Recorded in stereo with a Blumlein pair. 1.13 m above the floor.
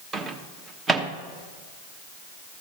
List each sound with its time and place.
0.1 s a microwave: 15° right, 1.1 m